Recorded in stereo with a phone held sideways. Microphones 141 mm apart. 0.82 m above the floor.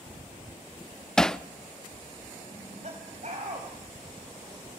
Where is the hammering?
5° left (ahead or behind), 0.5 m.